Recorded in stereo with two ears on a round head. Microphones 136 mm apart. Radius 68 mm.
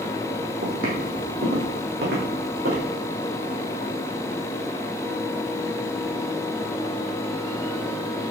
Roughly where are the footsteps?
Right.